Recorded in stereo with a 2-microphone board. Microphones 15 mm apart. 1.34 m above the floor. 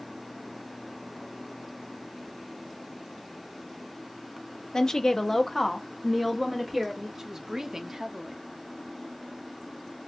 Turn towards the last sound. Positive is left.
turn(degrees=-45)  # may be behind; listen again after turning